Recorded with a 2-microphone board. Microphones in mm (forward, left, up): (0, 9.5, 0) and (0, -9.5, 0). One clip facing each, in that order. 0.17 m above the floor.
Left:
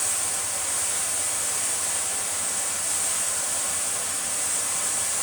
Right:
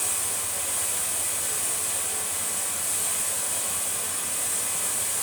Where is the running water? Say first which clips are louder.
Left 2 dB; 25° left (ahead or behind), 6.5 m.